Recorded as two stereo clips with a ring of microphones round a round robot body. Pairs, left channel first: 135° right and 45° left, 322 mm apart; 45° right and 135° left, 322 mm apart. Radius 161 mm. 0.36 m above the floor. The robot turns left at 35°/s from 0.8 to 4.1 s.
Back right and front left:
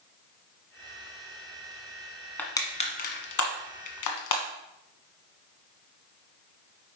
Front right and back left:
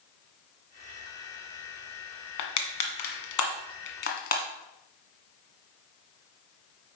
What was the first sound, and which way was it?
Crushing, 50° right.